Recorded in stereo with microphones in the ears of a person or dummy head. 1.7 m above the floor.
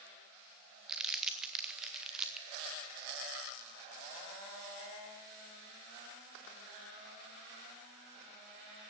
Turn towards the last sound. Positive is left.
turn(degrees=-5)  # may be behind; listen again after turning